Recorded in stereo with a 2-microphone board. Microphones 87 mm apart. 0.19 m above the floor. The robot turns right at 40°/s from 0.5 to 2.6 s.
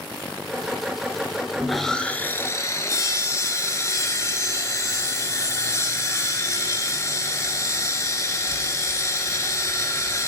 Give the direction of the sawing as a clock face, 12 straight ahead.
12 o'clock.